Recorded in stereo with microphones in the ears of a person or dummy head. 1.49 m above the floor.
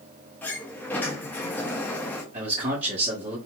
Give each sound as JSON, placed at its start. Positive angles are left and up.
{"t": 0.4, "sound": "a sliding door", "side_deg": 5, "distance_m": 0.7}
{"t": 2.3, "sound": "a man speaking", "side_deg": -35, "distance_m": 1.3}